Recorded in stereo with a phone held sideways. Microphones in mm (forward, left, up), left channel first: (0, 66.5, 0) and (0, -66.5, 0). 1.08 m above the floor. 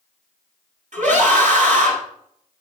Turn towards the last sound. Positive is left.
turn(degrees=-65)  # may be behind; listen again after turning